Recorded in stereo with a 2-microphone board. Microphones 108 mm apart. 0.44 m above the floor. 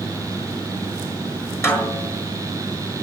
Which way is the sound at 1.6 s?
25° left (ahead or behind).